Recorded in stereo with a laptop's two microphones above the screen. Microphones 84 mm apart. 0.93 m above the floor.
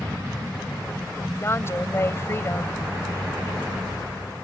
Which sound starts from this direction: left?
A woman speaking, at 1.3 s.